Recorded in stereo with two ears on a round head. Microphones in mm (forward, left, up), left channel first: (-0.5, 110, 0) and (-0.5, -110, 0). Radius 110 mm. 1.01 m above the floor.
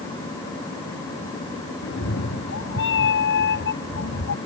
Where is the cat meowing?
50° left (ahead or behind).